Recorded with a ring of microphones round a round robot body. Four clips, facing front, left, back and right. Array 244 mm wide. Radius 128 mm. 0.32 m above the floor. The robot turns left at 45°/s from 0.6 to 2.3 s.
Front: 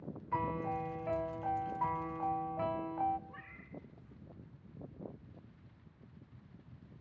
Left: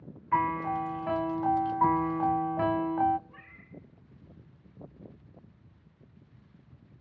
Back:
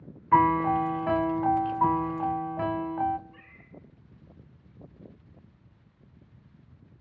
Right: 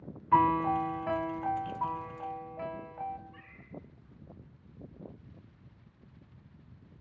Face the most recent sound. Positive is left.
turn(degrees=35)